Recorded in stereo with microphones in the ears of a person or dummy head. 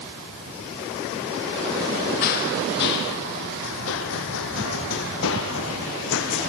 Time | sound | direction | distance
2.2 | running footsteps | 50° left (ahead or behind) | 2 m